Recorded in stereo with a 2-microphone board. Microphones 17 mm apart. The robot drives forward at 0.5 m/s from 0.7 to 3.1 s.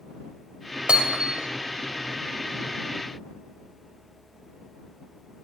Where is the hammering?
80° right, 3 m.